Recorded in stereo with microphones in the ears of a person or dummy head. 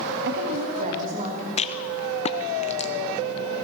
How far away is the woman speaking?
About 1.7 m.